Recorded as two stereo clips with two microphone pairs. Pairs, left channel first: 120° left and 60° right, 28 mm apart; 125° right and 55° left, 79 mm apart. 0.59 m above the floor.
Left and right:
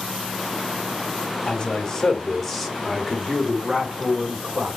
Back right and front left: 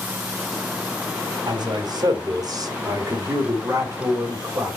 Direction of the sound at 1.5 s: 60° left.